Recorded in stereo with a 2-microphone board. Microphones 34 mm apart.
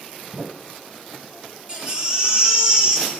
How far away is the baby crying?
About 2.5 m.